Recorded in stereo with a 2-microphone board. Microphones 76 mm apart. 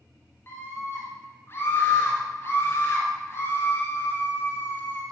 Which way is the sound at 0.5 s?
35° left (ahead or behind).